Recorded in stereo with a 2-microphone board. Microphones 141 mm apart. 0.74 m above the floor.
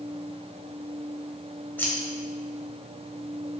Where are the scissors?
15° left (ahead or behind), 0.6 m.